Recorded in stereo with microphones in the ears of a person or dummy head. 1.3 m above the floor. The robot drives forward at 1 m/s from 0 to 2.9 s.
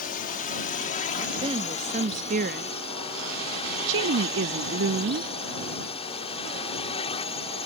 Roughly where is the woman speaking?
Right.